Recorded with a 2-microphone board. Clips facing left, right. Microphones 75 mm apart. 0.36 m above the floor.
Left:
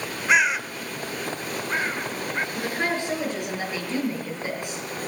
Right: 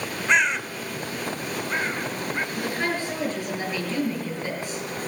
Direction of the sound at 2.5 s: 20° left (ahead or behind).